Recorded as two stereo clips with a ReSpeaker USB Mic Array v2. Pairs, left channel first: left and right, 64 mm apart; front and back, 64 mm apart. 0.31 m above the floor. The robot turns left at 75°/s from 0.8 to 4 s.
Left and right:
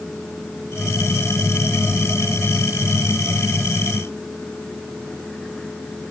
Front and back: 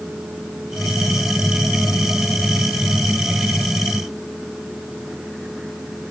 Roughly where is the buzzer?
No buzzer in this recording.